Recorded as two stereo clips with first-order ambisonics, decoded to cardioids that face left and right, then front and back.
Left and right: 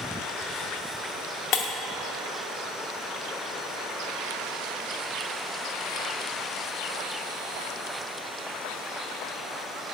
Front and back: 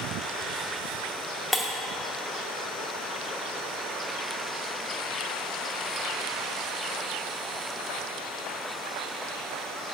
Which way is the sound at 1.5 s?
85° left.